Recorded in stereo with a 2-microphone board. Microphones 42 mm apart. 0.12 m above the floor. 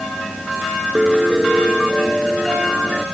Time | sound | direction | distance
0.9 | a piano | 5° left (ahead or behind) | ?